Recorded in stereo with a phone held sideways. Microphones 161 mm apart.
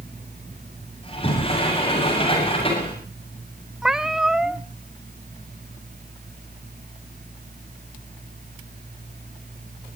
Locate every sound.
0.0 s a fan: 60° right (ahead or behind), 6 m
1.0 s a sliding door: 35° left (ahead or behind), 7.5 m
3.8 s a cat meowing: 5° right (ahead or behind), 0.6 m